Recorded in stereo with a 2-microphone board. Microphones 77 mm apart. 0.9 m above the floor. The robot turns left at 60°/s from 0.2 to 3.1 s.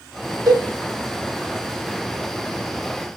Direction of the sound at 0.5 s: 55° right (ahead or behind).